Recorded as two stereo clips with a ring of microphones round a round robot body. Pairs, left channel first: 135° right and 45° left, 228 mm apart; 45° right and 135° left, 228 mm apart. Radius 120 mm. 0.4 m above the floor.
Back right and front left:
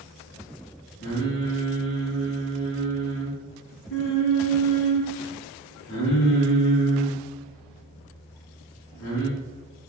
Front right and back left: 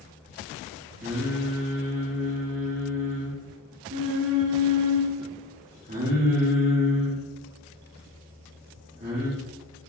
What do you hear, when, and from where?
1.0 s singing: 175° right, 3 m